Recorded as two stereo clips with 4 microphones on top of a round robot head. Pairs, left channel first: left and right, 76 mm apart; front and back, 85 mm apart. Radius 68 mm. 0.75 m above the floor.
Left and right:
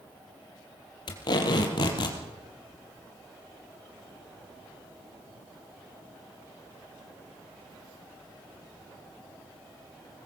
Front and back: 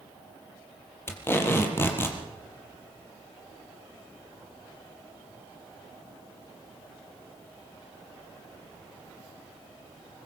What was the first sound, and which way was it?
Tape being pulled, 65° left.